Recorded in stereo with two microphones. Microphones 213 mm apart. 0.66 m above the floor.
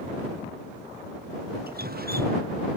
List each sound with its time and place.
1.7 s dripping: 50° right (ahead or behind)